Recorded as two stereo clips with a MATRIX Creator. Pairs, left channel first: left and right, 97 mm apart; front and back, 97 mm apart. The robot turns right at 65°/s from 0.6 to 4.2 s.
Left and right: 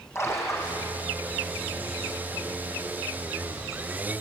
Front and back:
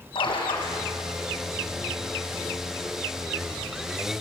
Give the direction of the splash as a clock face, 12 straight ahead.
11 o'clock.